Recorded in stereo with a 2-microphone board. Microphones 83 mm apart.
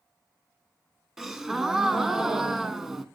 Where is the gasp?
5° right (ahead or behind), 1.0 m.